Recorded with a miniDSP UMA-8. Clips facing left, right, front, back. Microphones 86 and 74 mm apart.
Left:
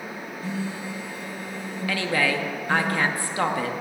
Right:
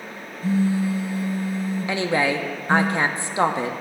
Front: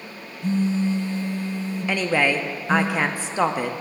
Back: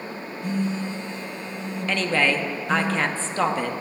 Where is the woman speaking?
60° right, 0.5 m.